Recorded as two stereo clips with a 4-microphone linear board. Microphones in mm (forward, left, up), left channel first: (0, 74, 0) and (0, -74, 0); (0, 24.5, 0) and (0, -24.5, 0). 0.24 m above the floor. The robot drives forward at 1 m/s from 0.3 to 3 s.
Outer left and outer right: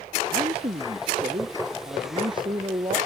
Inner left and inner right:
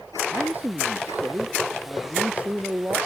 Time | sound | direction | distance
0.3 | a man speaking | 40° right (ahead or behind) | ?